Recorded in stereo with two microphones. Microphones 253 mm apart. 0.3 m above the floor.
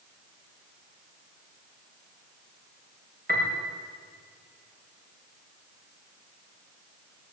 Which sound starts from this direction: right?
A piano, at 3.3 s.